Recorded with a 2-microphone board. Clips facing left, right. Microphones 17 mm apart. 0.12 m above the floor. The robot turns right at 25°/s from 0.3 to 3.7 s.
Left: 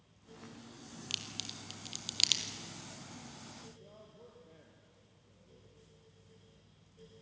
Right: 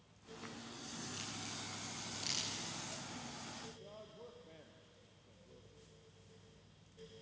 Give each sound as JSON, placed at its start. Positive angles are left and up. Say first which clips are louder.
{"t": 1.1, "sound": "a crack", "louder": "left 9 dB", "side_deg": 65, "distance_m": 2.5}
{"t": 3.8, "sound": "a man speaking", "louder": "right 2 dB", "side_deg": -25, "distance_m": 3.5}